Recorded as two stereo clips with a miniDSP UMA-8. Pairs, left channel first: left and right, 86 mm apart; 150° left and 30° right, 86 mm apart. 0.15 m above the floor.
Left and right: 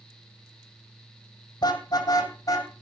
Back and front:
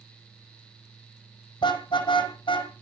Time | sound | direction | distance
1.6 | a car horn | 130° left | 2.5 m